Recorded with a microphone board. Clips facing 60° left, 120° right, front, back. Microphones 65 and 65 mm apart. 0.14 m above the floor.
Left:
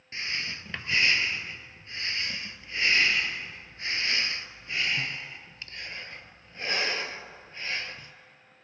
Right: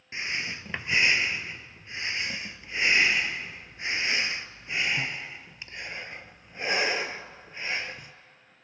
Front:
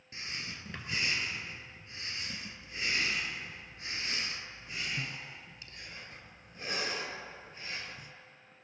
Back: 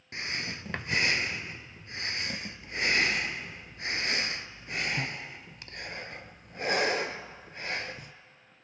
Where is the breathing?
170° left, 0.5 m.